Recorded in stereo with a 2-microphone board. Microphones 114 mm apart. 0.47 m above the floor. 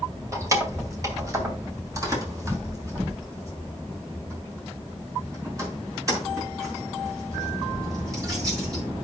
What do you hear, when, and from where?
0.3 s keys jangling: 25° right (ahead or behind), 2.0 m; by 8.8 s 30° right (ahead or behind), 6.5 m